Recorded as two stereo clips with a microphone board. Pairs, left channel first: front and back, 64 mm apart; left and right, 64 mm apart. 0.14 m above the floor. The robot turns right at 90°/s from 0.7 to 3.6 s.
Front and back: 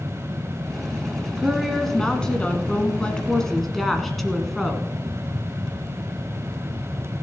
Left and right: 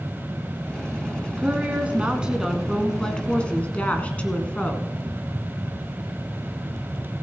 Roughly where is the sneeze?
No sneeze in this recording.